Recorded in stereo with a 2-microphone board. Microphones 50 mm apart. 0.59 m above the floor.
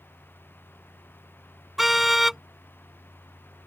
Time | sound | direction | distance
1.8 | a car horn | 5° right (ahead or behind) | ?